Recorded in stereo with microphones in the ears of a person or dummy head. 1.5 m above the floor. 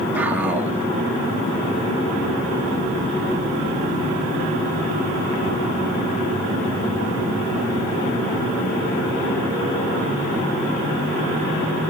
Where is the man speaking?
5° right (ahead or behind), 2 m.